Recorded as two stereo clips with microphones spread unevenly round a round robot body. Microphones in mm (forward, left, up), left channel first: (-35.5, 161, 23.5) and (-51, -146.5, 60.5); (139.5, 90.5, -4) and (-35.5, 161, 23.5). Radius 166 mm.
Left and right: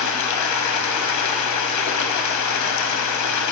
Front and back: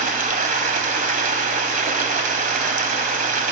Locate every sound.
0.0 s running water: 115° left, 2.5 m